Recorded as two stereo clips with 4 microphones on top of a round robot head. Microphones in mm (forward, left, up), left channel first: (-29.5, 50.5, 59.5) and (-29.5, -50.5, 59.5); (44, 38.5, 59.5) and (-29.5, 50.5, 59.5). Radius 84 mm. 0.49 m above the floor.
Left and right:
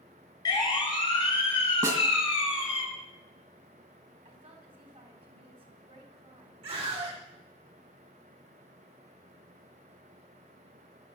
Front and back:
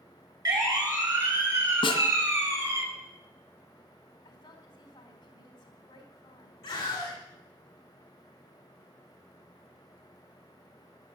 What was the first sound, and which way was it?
A siren, 140° left.